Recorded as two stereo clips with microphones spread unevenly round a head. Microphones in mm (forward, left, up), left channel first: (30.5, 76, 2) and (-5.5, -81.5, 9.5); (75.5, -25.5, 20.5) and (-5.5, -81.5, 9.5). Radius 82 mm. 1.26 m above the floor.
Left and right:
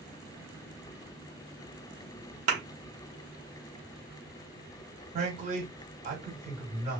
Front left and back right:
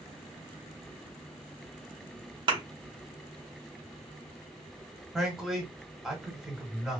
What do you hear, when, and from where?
2.5 s a thud: 125° right, 1.0 m
5.1 s a man speaking: 60° right, 1.8 m